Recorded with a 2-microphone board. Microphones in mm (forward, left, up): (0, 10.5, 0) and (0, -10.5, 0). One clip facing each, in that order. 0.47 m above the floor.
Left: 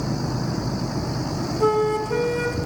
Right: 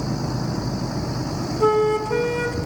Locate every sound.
1.6 s a flute: 15° right (ahead or behind), 1.1 m